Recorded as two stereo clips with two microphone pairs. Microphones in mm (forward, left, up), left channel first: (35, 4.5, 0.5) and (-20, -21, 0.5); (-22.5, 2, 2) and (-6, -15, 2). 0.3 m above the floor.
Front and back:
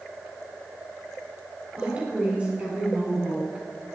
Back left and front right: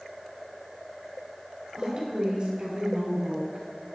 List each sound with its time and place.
1.8 s a woman speaking: 90° right, 3 m